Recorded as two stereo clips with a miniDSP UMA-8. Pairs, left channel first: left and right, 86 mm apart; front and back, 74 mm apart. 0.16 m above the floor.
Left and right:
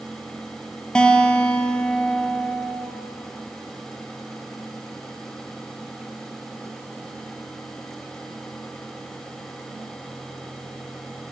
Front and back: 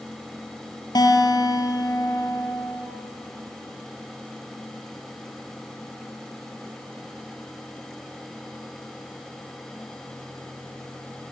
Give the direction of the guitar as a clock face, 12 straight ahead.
12 o'clock.